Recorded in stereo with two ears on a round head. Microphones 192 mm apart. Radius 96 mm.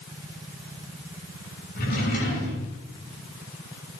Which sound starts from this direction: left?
A drawer, at 1.8 s.